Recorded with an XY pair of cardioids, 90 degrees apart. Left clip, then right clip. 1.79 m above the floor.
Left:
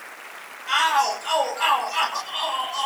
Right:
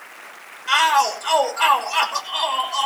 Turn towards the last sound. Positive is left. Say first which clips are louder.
# right 3 dB
turn(degrees=-60)